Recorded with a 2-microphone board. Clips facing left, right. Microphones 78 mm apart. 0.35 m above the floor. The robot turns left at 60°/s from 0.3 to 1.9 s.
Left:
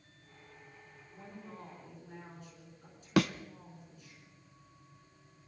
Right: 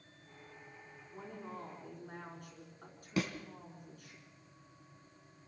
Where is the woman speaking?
75° right, 4.5 m; by 4.2 s 125° right, 4.5 m.